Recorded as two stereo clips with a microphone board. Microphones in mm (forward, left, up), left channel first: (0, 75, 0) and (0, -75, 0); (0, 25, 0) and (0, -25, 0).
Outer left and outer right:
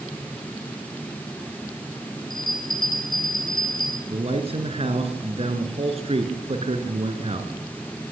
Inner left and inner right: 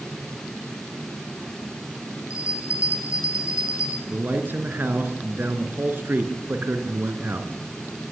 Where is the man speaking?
40° right (ahead or behind), 2 m.